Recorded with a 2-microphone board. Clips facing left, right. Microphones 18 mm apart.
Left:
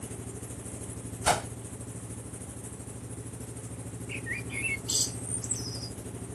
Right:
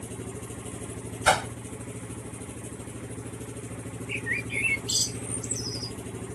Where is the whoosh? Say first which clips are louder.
Right 5 dB; 35° right (ahead or behind).